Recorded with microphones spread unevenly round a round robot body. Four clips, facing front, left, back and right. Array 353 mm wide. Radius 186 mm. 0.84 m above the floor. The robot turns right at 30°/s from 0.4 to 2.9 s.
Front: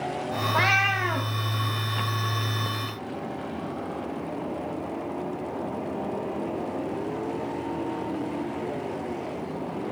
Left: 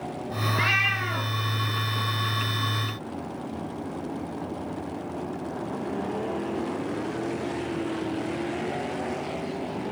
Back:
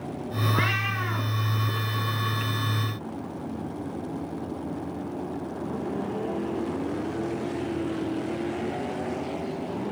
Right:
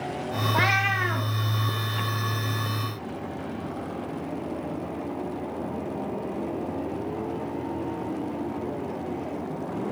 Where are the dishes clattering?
I don't hear dishes clattering.